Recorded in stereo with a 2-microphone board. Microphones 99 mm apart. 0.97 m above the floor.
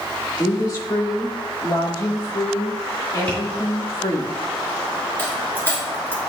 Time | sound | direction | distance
0.4 | a woman speaking | 35° left (ahead or behind) | 2 m
3.3 | tapping | 15° left (ahead or behind) | 2.5 m
5.2 | a dropped coin | 20° left (ahead or behind) | 2.5 m